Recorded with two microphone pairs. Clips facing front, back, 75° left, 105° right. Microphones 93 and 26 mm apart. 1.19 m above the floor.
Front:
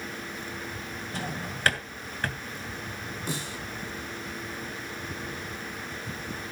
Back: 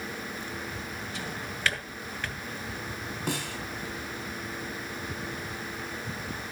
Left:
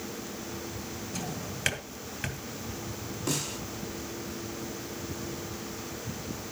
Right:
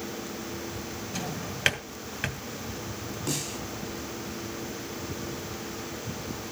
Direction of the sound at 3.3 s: 165° left.